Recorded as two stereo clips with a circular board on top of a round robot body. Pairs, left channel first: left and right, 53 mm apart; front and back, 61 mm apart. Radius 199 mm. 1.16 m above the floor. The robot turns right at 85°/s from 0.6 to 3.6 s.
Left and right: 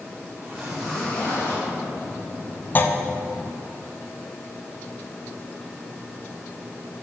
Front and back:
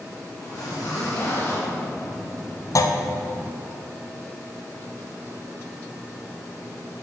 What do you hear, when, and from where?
0.4 s a zipper: 25° right, 3 m; by 1.7 s 70° left, 3 m
2.8 s a clunk: 35° left, 0.7 m; by 3.0 s 50° left, 0.7 m